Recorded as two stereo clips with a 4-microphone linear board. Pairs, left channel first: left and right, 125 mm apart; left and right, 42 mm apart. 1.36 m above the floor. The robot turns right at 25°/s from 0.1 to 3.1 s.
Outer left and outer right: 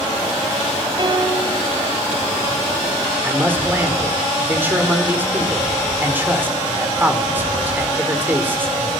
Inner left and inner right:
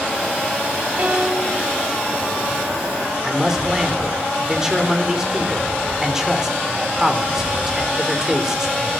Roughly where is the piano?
Right.